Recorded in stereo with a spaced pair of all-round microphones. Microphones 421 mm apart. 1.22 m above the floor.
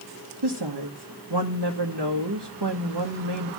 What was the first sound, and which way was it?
A woman speaking, 65° right (ahead or behind).